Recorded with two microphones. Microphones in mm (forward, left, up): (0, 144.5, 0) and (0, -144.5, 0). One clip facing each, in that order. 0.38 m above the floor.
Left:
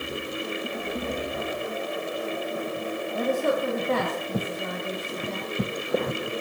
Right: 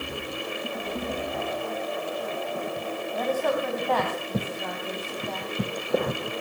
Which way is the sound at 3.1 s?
25° left (ahead or behind).